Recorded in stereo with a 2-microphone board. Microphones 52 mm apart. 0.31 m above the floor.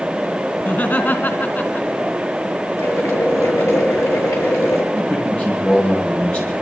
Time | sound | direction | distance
0.6 | laughter | 40° left (ahead or behind) | 2.5 m
2.8 | boiling | 80° left | 7 m
4.9 | a man speaking | 25° left (ahead or behind) | 9 m